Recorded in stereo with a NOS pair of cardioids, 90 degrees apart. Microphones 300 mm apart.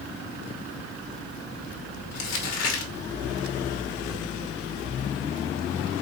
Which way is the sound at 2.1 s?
60° left.